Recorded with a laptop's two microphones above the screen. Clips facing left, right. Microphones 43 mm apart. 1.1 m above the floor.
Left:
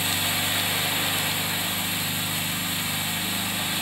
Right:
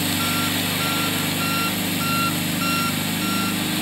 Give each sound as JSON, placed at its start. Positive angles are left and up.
{"t": 0.0, "sound": "an engine running", "side_deg": -90}